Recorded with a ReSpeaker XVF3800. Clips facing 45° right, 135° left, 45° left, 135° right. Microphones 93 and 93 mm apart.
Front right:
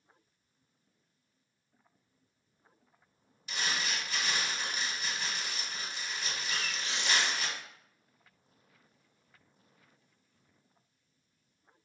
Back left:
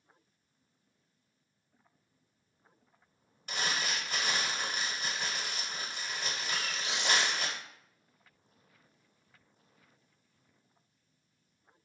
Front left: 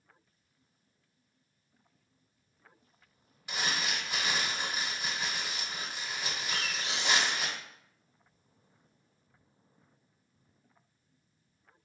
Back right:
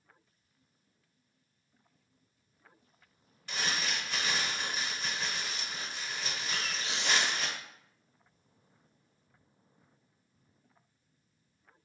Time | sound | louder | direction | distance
3.5 | crumpling | back left 1 dB, front left 1 dB | 120° left | 0.8 m
6.5 | a bird | even, front left 1 dB | 165° right | 0.7 m